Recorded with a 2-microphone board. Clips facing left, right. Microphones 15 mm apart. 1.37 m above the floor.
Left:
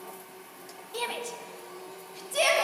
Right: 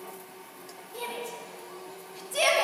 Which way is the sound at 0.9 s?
60° left (ahead or behind).